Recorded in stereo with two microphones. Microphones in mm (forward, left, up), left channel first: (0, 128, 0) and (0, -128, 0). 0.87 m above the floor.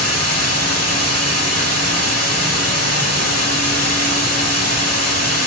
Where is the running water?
65° left (ahead or behind), 6 m.